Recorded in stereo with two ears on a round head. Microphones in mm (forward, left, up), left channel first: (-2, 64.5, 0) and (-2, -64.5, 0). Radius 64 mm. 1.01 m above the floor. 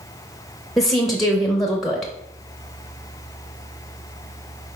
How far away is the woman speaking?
About 0.7 m.